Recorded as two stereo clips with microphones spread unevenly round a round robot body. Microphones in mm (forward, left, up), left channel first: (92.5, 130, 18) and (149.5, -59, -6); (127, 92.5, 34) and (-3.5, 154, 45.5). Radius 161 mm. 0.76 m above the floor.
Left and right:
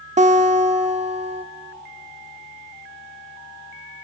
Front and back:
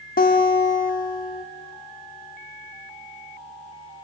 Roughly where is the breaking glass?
I don't hear breaking glass.